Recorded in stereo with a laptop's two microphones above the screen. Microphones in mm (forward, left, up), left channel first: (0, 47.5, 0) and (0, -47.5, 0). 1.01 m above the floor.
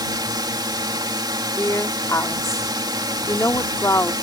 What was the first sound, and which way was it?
A drone, 45° right (ahead or behind).